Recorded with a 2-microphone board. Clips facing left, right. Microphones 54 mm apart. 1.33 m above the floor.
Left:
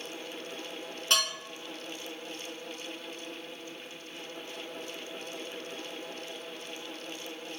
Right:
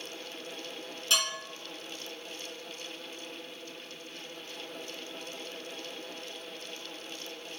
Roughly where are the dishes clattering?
Left.